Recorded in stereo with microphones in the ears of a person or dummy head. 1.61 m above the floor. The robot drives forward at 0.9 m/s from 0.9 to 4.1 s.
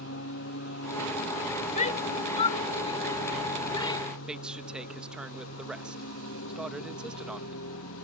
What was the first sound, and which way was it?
A lawn mower, 75° left (ahead or behind).